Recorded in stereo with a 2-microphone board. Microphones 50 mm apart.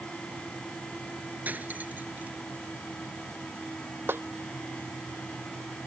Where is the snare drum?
50° right (ahead or behind).